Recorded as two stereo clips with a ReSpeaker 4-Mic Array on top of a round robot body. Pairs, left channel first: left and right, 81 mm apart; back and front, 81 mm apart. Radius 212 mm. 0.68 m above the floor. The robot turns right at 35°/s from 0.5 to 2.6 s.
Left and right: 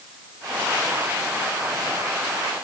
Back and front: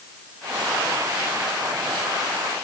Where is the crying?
No crying in this recording.